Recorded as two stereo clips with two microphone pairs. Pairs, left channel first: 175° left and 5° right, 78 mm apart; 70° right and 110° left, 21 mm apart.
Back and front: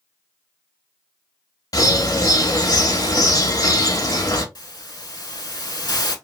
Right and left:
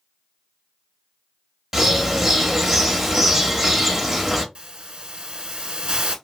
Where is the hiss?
140° left, 0.8 m.